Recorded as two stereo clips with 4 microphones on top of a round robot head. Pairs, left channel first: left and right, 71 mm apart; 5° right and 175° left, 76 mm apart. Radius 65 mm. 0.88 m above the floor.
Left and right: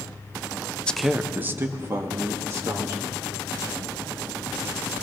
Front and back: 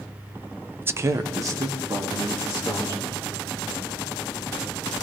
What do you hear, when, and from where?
0.8 s a man speaking: 145° left, 0.5 m; by 3.2 s 135° right, 2.5 m